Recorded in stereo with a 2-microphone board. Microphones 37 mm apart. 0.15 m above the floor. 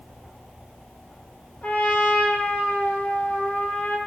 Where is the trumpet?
55° left (ahead or behind), 2.5 m.